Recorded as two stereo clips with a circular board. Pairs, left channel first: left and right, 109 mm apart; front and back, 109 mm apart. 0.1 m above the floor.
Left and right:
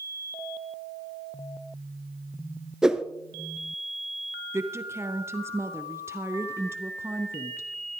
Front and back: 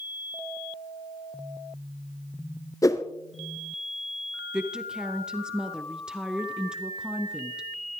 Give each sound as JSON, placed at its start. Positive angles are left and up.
{"t": 2.8, "sound": "a whoosh", "azimuth_deg": -10, "distance_m": 0.9}
{"t": 4.5, "sound": "a woman speaking", "azimuth_deg": -110, "distance_m": 1.1}